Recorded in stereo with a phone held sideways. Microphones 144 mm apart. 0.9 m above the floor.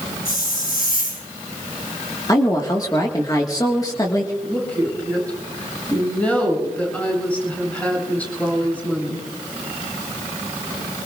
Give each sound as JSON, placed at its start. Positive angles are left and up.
{"t": 0.2, "sound": "a hiss", "side_deg": 80, "distance_m": 7.0}
{"t": 2.3, "sound": "a woman speaking", "side_deg": 25, "distance_m": 1.6}
{"t": 4.4, "sound": "a woman speaking", "side_deg": 10, "distance_m": 8.0}